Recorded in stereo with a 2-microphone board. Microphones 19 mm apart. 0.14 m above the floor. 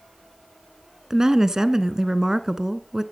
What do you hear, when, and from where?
1.1 s a woman speaking: 35° right (ahead or behind), 1.2 m